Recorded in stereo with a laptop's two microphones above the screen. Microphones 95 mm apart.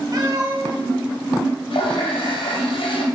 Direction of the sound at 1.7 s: 85° left.